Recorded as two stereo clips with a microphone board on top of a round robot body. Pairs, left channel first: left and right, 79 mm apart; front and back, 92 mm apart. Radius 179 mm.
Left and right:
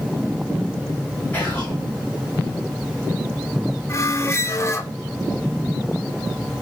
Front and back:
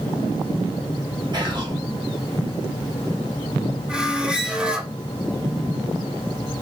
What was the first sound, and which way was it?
Whispering, 155° left.